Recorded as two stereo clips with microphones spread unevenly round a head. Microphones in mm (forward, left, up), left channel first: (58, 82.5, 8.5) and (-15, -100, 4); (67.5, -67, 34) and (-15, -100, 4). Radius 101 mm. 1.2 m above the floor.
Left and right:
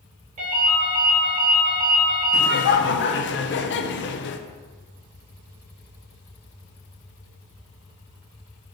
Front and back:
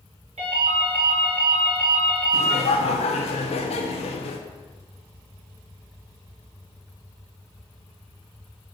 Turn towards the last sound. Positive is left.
turn(degrees=45)